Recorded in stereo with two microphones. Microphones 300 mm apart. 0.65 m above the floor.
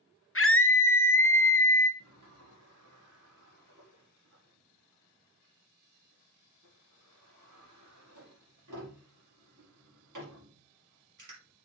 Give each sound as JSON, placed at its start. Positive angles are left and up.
{"t": 0.3, "sound": "a scream", "side_deg": 45, "distance_m": 0.8}
{"t": 2.0, "sound": "a sliding door", "side_deg": -80, "distance_m": 4.0}